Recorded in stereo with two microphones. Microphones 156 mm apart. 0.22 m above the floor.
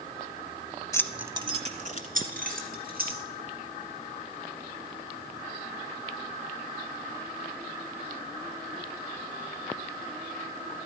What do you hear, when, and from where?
0.9 s keys jangling: 20° left (ahead or behind), 0.7 m; by 3.2 s 65° right (ahead or behind), 3.5 m